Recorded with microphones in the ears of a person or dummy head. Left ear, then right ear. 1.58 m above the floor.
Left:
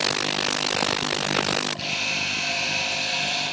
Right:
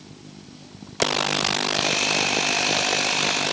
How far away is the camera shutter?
About 9 m.